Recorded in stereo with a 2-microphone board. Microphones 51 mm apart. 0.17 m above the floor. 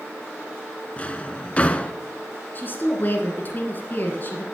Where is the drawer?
25° left (ahead or behind), 0.7 m.